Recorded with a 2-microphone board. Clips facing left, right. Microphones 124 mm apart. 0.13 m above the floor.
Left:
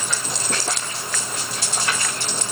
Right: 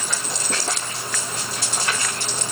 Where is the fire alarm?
I don't hear a fire alarm.